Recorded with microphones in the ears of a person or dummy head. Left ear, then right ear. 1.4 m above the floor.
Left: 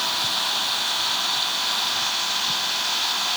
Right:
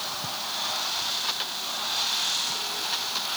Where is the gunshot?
I don't hear a gunshot.